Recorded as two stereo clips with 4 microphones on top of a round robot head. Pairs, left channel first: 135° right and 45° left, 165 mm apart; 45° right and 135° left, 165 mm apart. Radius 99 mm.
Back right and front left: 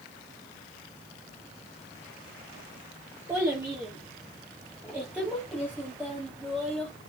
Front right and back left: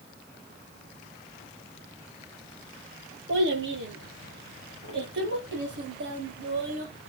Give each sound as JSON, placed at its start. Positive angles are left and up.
{"t": 3.3, "sound": "a child speaking", "azimuth_deg": 120, "distance_m": 8.5}